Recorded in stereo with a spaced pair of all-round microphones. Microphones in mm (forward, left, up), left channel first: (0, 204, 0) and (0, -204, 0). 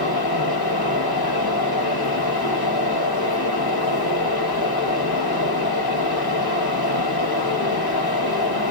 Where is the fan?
60° left (ahead or behind), 1.3 m.